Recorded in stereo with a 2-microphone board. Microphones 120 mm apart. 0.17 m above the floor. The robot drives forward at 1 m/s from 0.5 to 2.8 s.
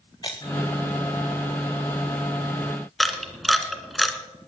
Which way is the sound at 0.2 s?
35° left (ahead or behind).